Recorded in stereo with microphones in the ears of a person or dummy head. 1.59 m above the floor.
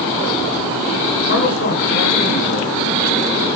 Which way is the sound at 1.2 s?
75° left (ahead or behind).